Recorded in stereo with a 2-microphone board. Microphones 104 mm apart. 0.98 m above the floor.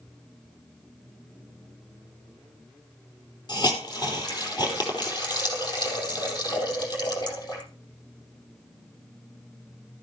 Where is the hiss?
40° left (ahead or behind), 5 m.